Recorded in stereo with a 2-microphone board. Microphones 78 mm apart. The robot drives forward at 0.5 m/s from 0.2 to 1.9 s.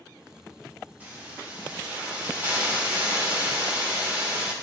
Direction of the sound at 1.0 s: 25° right (ahead or behind).